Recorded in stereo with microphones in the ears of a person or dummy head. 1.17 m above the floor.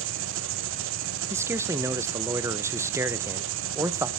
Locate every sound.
0.0 s an engine running: 65° right (ahead or behind), 0.7 m
1.3 s a man speaking: 10° right (ahead or behind), 0.6 m